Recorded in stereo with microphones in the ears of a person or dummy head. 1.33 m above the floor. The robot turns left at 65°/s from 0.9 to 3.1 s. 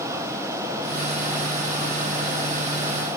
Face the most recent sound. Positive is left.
No sound to turn to.